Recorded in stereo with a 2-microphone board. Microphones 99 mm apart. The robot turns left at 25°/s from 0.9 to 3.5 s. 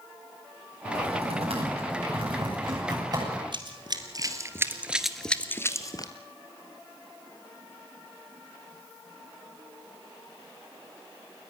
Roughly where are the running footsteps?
Right.